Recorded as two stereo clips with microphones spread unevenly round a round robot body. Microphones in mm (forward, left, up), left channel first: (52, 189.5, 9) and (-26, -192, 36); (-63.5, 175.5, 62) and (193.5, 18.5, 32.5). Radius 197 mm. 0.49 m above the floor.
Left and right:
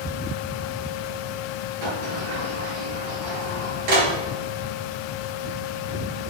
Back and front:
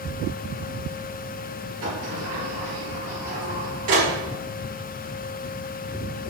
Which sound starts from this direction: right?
A sliding door, at 1.8 s.